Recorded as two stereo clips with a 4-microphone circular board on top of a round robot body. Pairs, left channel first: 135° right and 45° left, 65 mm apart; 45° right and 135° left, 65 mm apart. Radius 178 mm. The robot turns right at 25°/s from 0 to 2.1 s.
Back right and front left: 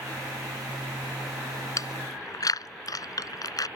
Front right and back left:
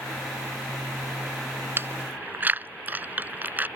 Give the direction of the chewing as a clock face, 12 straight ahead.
6 o'clock.